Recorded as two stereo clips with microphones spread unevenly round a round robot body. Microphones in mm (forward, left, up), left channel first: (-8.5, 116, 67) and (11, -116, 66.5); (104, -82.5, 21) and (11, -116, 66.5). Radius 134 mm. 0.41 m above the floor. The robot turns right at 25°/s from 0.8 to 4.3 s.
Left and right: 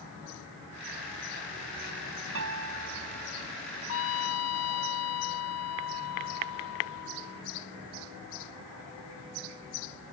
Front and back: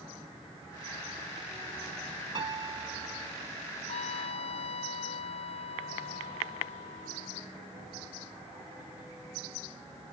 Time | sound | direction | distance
2.4 | a piano | 120° right | ?
3.9 | a trumpet | 60° left | ?